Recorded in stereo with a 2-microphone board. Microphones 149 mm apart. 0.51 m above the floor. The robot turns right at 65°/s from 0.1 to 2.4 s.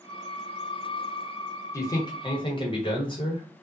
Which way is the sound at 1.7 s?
35° left.